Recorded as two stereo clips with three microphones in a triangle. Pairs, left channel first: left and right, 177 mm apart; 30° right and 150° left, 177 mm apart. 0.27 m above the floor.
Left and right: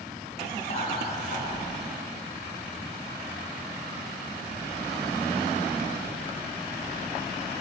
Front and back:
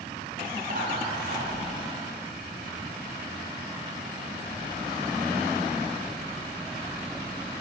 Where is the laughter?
135° left, 2.5 m; by 1.6 s 125° left, 3.5 m.